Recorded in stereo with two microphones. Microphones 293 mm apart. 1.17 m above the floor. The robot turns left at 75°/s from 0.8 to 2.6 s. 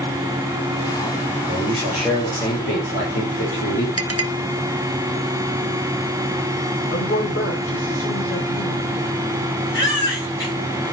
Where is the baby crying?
40° left (ahead or behind), 4.5 m.